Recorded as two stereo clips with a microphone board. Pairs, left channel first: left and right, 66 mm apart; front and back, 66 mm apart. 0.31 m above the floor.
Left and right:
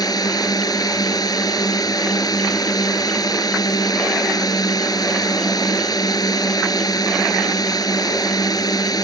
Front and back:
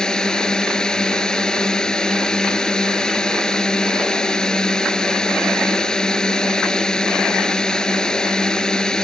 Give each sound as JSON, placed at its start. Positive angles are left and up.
{"t": 0.0, "sound": "a drone", "azimuth_deg": 80}